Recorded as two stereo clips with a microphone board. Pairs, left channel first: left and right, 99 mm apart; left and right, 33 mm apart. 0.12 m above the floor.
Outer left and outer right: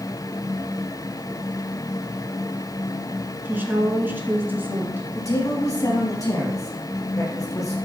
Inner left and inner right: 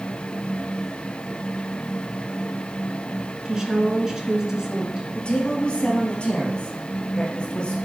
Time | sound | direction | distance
3.5 | a woman speaking | 20° right (ahead or behind) | 1.3 m
5.2 | a woman speaking | 35° left (ahead or behind) | 2.5 m